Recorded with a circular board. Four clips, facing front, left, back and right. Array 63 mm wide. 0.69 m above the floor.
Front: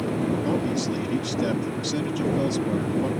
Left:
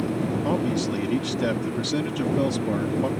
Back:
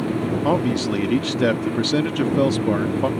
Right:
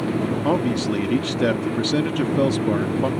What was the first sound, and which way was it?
A man speaking, 150° right.